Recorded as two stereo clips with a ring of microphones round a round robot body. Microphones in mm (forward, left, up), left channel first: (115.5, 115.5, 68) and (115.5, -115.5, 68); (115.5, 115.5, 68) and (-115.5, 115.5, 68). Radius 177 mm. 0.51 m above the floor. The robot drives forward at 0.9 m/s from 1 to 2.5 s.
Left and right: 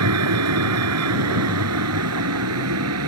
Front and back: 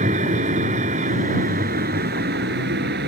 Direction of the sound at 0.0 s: 110° right.